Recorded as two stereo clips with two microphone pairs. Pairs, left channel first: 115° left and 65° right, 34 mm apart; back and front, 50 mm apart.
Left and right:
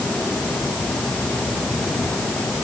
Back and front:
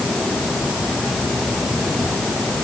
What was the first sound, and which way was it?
Only background noise.